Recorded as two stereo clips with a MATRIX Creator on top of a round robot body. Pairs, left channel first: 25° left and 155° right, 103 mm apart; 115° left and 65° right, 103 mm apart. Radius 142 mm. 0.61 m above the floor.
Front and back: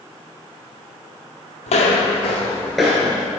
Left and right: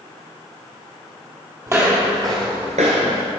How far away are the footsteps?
About 1.4 m.